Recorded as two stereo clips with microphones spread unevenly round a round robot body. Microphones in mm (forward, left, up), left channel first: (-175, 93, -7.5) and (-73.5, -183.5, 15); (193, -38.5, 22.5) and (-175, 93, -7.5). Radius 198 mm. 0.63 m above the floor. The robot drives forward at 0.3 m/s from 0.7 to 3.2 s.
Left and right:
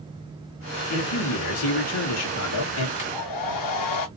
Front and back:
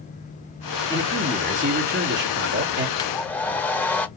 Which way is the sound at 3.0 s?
60° left.